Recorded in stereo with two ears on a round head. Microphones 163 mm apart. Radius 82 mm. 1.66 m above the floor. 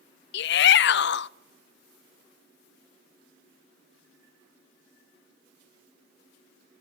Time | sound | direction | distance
0.3 | a shout | 65° left (ahead or behind) | 0.7 m